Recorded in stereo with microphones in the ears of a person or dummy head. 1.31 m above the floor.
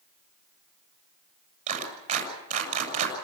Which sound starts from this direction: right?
A clap, at 1.7 s.